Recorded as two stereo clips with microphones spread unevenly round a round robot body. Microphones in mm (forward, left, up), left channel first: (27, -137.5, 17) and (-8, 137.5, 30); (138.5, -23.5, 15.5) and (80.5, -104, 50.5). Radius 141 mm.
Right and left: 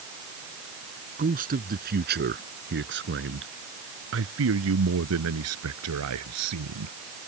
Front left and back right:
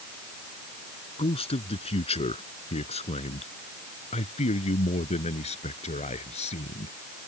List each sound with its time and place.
1.2 s a man speaking: 35° left; by 6.9 s 70° left